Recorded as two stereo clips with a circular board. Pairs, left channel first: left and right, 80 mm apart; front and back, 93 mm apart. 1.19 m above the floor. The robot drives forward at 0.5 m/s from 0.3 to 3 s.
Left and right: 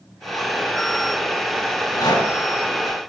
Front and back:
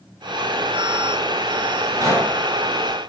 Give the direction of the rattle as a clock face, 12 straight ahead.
8 o'clock.